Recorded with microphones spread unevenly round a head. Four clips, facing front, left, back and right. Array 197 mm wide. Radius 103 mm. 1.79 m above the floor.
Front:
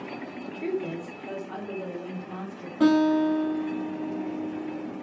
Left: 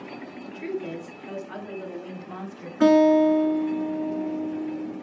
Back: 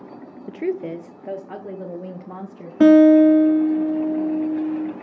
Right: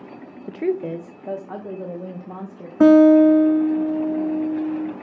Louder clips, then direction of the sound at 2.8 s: Right 6 dB, back 10 dB; 130° right.